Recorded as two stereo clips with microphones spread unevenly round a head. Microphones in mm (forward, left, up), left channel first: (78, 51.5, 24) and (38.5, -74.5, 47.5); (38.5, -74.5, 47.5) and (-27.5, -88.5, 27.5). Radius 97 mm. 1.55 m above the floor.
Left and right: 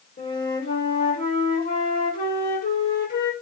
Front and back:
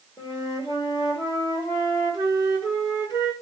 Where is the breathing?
I don't hear breathing.